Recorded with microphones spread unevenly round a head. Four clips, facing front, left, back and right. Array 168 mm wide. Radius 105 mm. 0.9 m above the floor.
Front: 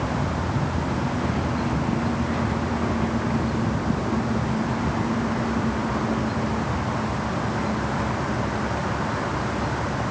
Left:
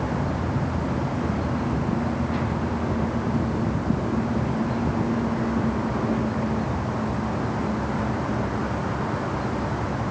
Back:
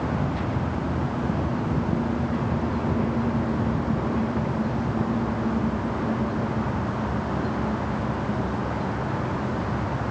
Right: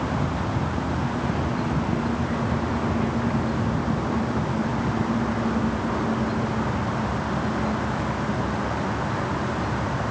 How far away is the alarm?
No alarm in this recording.